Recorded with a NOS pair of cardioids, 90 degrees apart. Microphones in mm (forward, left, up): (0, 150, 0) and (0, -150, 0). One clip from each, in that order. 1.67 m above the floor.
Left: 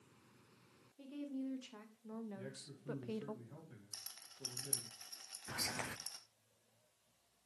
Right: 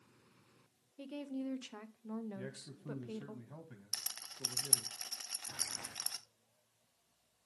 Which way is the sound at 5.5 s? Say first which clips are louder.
Left 5 dB; 40° left.